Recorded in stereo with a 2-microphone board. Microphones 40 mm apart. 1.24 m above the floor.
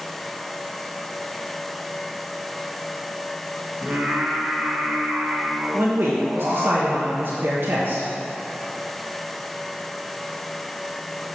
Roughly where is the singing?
Right.